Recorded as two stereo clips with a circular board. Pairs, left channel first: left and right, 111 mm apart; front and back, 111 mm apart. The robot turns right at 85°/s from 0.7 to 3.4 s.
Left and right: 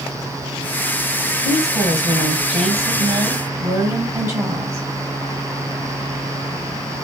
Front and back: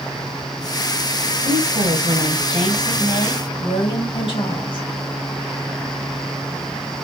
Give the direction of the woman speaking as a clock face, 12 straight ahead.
6 o'clock.